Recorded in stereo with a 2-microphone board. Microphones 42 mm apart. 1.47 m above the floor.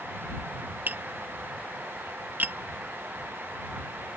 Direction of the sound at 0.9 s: 50° right (ahead or behind).